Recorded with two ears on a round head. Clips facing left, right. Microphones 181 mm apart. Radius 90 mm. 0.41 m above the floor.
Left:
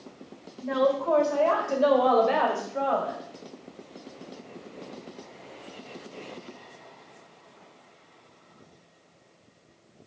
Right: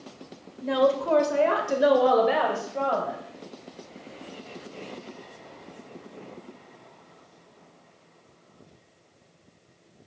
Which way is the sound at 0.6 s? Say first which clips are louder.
Right 2 dB; 45° right (ahead or behind).